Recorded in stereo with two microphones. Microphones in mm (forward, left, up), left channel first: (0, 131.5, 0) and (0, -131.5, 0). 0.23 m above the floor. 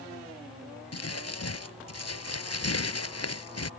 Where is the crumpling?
65° left (ahead or behind).